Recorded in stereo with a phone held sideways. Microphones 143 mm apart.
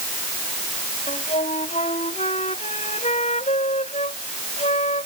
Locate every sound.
1.1 s a flute: 50° left (ahead or behind)